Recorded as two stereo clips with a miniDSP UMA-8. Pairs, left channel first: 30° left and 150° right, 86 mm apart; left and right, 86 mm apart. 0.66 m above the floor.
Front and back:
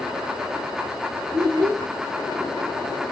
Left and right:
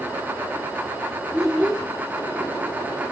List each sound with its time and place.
1.3 s a child speaking: straight behind, 4.5 m